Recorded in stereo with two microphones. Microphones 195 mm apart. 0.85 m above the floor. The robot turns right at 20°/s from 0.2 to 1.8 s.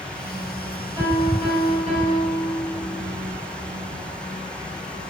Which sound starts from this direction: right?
A piano, at 1.0 s.